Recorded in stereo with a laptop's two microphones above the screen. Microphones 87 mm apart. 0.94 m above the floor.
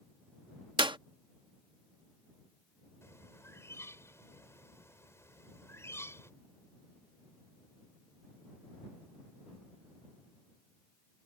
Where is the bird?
30° left (ahead or behind).